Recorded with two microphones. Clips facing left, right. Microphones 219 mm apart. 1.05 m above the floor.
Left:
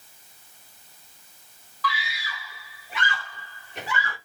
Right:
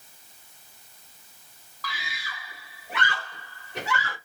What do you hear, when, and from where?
1.8 s a scream: 45° right (ahead or behind), 2.5 m; by 4.2 s 70° right (ahead or behind), 2.5 m